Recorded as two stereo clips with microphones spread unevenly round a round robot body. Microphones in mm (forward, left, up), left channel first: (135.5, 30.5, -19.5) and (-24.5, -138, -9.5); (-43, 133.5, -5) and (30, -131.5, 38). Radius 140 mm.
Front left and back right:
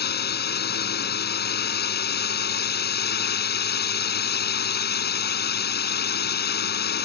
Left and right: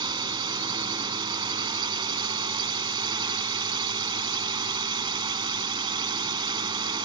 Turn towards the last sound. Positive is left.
turn(degrees=0)